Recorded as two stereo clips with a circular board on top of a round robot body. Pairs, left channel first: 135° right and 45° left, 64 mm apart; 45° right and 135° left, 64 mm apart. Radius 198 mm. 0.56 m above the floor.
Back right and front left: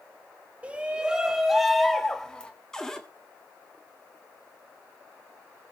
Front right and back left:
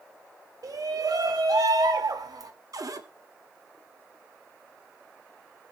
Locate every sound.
0.6 s a shout: 115° left, 2.5 m; by 2.5 s 150° left, 2.5 m
2.7 s a cupboard door: 145° left, 2 m